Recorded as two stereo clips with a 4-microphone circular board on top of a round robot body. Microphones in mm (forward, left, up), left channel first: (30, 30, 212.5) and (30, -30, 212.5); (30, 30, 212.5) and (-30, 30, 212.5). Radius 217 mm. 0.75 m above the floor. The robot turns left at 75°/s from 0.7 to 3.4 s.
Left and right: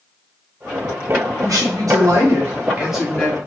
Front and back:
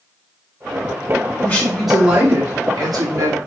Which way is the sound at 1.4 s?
65° right.